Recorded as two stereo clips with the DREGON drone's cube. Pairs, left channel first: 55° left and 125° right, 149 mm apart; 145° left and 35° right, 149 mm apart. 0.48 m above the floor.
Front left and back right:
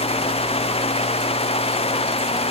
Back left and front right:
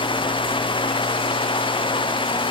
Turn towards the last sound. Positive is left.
No sound to turn to.